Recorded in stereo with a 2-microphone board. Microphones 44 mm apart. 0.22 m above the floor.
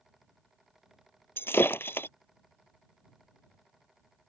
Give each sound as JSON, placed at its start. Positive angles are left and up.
{"t": 1.4, "sound": "breaking glass", "side_deg": 65}